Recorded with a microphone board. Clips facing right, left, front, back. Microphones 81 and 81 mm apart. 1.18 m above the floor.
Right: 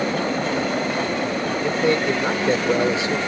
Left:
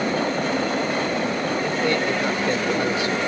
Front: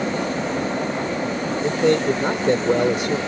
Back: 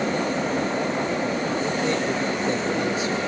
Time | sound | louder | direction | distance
1.6 | a man speaking | right 4 dB, front 10 dB | 25° right | ?